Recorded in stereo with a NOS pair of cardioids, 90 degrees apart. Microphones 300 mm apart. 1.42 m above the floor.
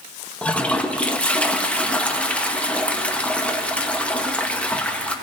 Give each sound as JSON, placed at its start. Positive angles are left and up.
{"t": 0.4, "sound": "a toilet flushing", "azimuth_deg": 5, "distance_m": 1.2}